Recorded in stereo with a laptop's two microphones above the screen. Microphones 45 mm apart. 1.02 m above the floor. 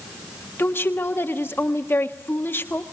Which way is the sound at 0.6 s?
55° left (ahead or behind).